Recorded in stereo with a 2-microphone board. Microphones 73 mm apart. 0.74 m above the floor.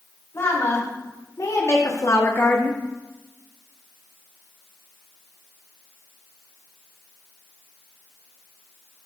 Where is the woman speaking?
45° left (ahead or behind), 3 m; by 2.8 s 10° left (ahead or behind), 1.0 m.